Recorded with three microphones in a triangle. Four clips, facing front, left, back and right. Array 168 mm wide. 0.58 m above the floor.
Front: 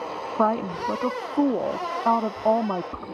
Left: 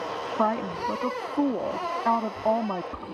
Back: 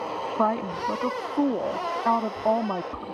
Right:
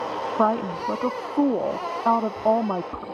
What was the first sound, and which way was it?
A woman speaking, 60° right.